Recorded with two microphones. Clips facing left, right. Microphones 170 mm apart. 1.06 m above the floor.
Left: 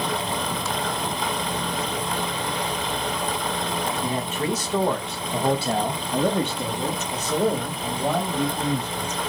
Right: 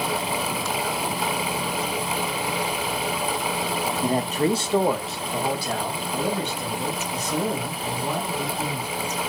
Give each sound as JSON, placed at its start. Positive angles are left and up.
{"t": 4.0, "sound": "a man speaking", "side_deg": -45, "distance_m": 1.0}